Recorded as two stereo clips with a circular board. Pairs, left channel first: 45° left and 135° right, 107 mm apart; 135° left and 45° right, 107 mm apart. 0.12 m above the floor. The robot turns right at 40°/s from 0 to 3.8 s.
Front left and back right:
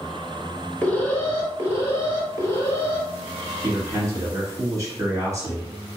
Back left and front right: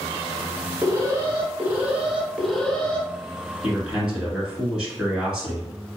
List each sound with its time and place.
0.8 s an alarm: 20° right, 1.2 m; by 3.1 s 70° left, 1.2 m
3.6 s a man speaking: 130° right, 1.9 m; by 5.7 s 120° right, 1.9 m